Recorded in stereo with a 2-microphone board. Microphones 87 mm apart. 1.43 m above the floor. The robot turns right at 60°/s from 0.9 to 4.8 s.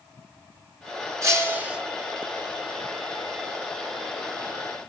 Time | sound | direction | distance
1.2 | breaking glass | 45° right | 2 m